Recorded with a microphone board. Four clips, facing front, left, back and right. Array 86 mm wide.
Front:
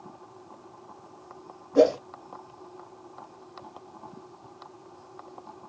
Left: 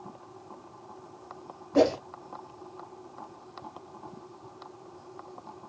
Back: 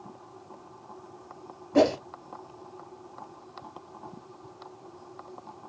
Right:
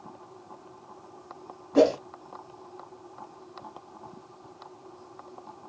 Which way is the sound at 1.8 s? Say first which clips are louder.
Right 2 dB, front 2 dB; 175° left.